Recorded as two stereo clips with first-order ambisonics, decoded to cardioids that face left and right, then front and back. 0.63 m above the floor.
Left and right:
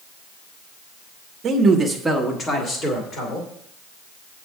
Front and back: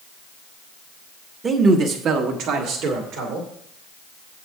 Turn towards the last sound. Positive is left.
turn(degrees=140)